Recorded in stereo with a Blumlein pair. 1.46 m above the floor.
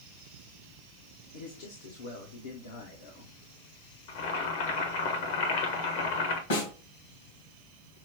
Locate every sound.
1.3 s a man speaking: 60° left, 0.9 m
4.1 s boiling: 50° left, 1.1 m
6.5 s a snare drum: 60° left, 1.9 m